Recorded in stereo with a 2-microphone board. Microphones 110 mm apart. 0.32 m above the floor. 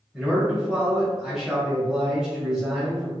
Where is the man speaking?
5° right (ahead or behind), 1.1 m.